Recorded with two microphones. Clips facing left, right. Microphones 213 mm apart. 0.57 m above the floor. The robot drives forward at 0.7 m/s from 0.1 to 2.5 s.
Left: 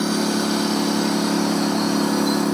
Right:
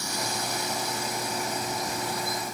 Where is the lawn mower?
70° left (ahead or behind); by 2.5 s 85° left.